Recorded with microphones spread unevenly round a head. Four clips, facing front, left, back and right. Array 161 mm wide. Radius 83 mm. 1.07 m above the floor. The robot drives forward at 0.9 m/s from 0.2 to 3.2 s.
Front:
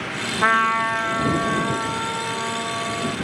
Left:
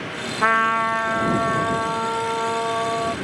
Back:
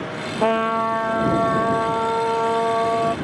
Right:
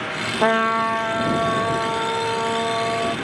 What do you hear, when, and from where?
0.4 s a trumpet: 145° right; by 3.1 s 175° right